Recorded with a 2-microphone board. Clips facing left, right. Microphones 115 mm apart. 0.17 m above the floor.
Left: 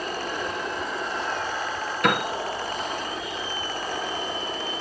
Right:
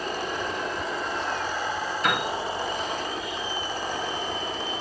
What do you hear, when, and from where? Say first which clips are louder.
2.0 s a piano: left 4 dB; 60° left (ahead or behind), 1.8 m